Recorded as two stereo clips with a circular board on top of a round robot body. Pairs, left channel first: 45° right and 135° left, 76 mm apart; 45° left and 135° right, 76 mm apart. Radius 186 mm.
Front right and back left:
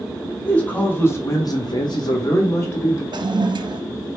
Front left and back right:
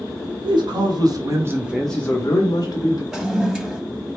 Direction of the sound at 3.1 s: 145° left.